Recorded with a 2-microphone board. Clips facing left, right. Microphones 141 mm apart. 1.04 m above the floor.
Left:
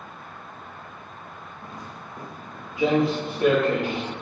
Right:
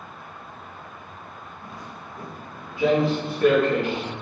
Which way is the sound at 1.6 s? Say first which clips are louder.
Even; 20° left (ahead or behind).